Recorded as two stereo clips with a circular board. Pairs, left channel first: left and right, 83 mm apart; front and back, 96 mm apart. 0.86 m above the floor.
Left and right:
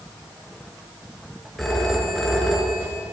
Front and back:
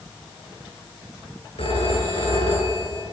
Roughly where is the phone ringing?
Ahead.